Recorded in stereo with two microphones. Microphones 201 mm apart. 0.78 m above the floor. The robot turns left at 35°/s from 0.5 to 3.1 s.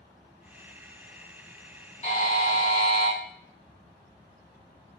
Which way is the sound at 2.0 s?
40° left.